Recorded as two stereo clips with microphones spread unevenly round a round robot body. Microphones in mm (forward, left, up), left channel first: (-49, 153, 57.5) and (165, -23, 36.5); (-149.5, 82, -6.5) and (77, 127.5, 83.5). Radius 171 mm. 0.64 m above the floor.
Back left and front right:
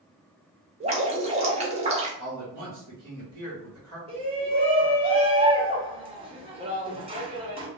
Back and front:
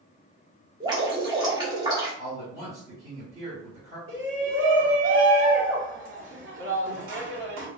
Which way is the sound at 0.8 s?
85° right.